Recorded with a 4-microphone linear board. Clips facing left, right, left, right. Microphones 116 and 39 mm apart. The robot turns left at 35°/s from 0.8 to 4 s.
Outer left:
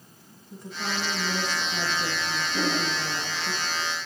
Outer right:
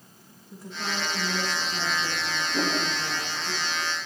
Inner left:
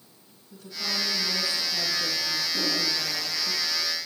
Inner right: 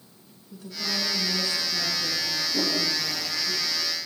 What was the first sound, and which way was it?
A woman speaking, 175° right.